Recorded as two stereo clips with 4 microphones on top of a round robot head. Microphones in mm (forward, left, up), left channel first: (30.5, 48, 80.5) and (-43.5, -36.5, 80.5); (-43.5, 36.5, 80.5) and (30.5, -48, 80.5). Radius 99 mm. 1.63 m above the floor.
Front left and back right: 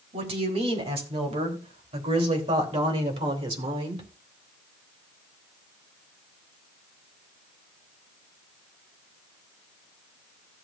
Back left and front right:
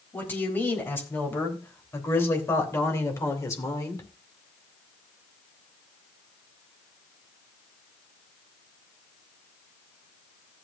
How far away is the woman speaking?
About 4 m.